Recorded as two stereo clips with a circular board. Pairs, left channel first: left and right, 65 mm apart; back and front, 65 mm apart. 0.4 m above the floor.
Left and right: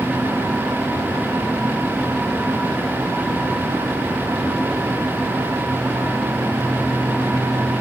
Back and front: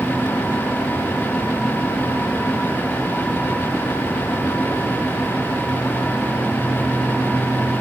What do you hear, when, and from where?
Only background noise.